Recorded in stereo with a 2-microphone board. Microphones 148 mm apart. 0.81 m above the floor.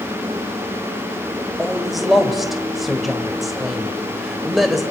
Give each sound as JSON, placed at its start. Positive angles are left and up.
{"t": 1.6, "sound": "a man speaking", "side_deg": 0, "distance_m": 3.0}